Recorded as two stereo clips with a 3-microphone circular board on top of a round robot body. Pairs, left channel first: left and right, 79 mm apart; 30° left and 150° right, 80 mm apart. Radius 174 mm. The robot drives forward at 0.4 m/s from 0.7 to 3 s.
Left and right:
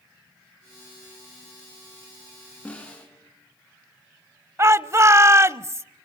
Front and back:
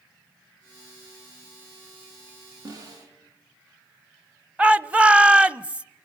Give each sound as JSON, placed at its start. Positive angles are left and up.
{"t": 2.6, "sound": "a snare drum", "azimuth_deg": 165, "distance_m": 6.5}
{"t": 4.6, "sound": "a shout", "azimuth_deg": -85, "distance_m": 1.0}